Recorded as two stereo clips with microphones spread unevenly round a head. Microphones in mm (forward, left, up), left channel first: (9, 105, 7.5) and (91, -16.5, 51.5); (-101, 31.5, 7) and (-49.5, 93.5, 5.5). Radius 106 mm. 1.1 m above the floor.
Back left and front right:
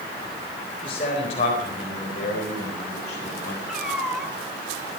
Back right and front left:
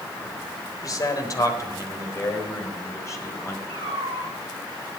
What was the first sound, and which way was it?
A man speaking, 170° right.